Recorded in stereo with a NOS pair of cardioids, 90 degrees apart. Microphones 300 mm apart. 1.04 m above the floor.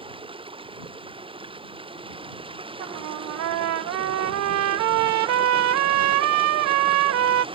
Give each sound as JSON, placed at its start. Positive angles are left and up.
{"t": 0.0, "sound": "running water", "azimuth_deg": -15}
{"t": 2.8, "sound": "a trumpet", "azimuth_deg": -65}